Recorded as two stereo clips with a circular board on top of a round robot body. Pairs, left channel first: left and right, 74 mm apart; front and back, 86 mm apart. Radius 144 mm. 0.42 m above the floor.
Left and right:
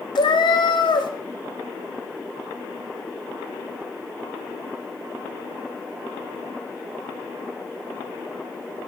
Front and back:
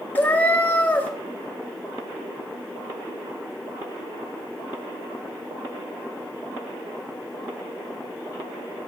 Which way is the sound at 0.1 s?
70° left.